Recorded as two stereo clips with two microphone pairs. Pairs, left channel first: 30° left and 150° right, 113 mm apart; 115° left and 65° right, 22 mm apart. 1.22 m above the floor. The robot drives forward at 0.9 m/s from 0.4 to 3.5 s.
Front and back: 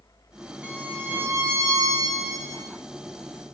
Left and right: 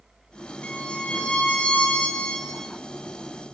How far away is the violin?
About 2.5 m.